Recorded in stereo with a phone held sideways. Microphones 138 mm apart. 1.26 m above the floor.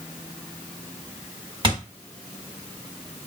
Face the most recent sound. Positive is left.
turn(degrees=-35)  # may be behind; listen again after turning